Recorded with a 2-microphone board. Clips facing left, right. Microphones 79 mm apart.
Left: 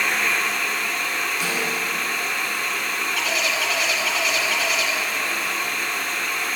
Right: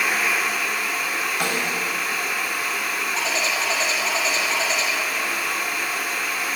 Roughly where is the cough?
No cough in this recording.